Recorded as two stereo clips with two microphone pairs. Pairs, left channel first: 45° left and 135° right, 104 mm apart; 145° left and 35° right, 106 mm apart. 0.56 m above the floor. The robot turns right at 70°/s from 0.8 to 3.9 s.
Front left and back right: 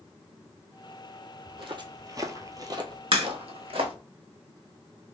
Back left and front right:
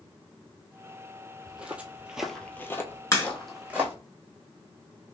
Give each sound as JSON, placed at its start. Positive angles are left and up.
{"t": 1.5, "sound": "footsteps", "azimuth_deg": -125, "distance_m": 1.0}
{"t": 3.1, "sound": "a crack", "azimuth_deg": -160, "distance_m": 1.1}